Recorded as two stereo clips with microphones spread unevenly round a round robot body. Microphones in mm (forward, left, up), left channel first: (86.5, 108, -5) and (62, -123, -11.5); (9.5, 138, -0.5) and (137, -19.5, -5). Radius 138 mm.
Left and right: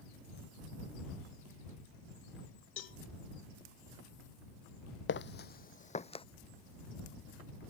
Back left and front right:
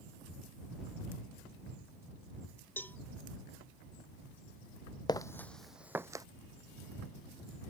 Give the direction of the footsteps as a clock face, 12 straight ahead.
10 o'clock.